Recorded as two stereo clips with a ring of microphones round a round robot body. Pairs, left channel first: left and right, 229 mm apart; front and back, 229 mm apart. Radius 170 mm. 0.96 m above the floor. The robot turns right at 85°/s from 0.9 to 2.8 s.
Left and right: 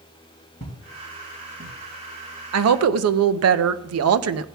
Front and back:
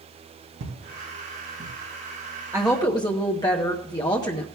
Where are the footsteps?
150° left, 3 m; by 1.7 s 125° right, 3 m.